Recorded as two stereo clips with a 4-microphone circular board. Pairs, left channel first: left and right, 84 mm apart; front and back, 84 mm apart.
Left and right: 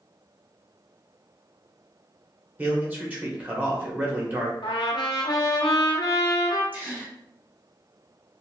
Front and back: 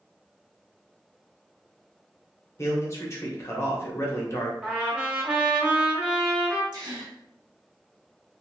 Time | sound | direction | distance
2.6 | a man speaking | 30° right | 1.0 m
4.6 | a trumpet | 100° left | 0.9 m
6.7 | a gasp | 160° right | 1.0 m